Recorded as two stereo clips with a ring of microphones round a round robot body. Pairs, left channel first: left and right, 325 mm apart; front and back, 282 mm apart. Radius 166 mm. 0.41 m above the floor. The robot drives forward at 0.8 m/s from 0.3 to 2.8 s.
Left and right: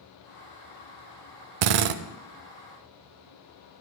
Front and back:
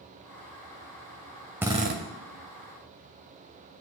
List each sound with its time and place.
1.6 s a drill: 95° right, 0.5 m; by 2.0 s 125° right, 0.7 m